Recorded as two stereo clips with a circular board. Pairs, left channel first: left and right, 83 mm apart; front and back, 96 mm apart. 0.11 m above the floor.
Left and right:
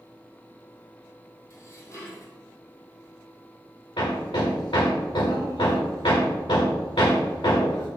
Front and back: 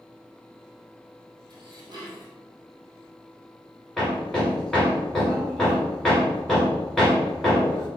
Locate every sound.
1.5 s dishes clattering: 140° left, 2 m
4.0 s hammering: 85° left, 3 m